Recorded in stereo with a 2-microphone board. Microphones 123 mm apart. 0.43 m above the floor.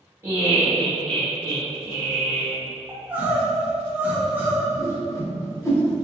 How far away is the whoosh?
About 0.6 m.